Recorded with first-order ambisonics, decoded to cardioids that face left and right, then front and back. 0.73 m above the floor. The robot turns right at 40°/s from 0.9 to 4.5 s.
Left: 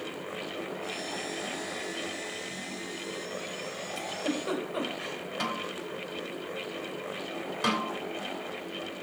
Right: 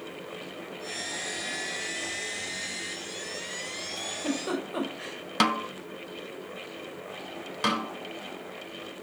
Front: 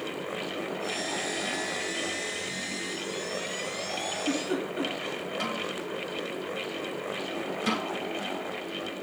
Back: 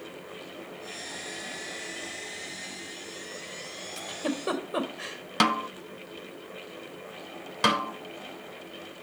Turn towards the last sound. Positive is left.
turn(degrees=-160)